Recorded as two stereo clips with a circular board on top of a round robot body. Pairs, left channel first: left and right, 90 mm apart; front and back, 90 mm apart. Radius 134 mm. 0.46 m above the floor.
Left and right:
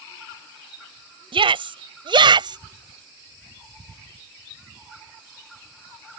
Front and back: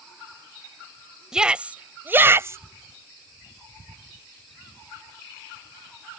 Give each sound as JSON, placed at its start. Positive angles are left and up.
{"t": 1.3, "sound": "a shout", "azimuth_deg": -100}